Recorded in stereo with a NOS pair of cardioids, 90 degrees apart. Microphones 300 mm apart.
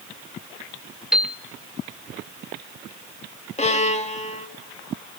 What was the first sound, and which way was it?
A piano, straight ahead.